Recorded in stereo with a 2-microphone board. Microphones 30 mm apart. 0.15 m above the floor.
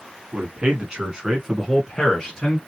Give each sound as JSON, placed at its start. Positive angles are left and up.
{"t": 0.3, "sound": "a man speaking", "side_deg": -45, "distance_m": 1.6}